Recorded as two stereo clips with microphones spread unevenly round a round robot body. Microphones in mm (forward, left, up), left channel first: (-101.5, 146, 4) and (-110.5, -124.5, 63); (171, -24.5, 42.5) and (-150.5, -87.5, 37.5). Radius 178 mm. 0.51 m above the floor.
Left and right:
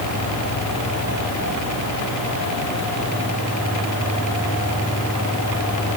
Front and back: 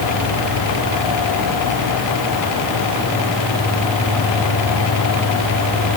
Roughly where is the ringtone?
No ringtone in this recording.